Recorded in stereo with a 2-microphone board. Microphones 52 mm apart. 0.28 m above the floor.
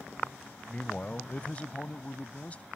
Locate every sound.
0.7 s a man speaking: 25° left (ahead or behind); by 2.7 s 30° left (ahead or behind)